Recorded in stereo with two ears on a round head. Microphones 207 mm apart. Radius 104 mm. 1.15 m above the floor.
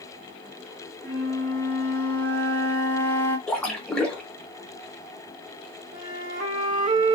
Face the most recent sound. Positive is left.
turn(degrees=-45)  # may be behind; listen again after turning